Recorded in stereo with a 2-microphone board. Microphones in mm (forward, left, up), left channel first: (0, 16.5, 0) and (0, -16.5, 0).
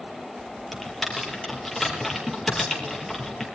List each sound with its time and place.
0.7 s typing on a keyboard: centre (ahead or behind), 4 m